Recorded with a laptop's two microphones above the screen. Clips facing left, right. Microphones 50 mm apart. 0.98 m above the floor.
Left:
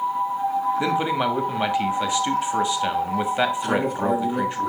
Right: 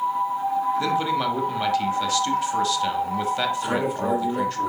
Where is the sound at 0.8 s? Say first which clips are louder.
Left 1 dB; 20° left (ahead or behind), 1.4 m.